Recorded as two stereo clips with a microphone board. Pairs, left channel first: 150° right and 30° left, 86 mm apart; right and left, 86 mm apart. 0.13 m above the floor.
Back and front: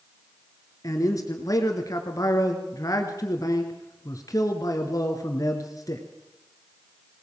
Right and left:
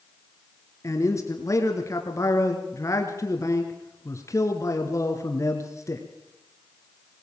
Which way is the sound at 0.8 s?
125° right.